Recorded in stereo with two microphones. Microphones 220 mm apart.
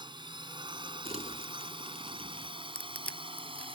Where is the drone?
20° right (ahead or behind); by 3.8 s 25° right (ahead or behind).